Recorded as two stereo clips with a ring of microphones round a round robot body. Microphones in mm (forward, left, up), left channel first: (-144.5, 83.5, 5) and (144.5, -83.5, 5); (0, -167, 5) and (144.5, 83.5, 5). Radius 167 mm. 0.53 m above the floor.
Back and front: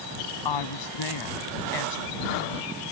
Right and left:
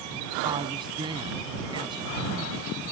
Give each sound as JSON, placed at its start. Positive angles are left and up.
{"t": 0.5, "sound": "a woman speaking", "azimuth_deg": 135}